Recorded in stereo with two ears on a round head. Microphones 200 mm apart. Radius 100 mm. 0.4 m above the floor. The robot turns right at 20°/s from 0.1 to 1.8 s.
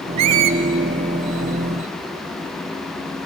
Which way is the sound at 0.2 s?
80° right.